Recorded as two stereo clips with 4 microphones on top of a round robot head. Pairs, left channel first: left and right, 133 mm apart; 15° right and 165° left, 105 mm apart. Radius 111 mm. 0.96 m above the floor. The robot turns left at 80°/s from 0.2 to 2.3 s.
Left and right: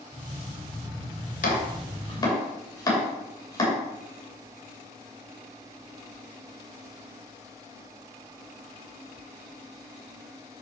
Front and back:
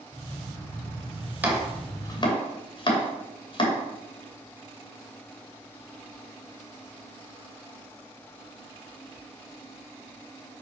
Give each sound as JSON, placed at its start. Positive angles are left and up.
{"t": 1.4, "sound": "chopping", "azimuth_deg": 95, "distance_m": 2.5}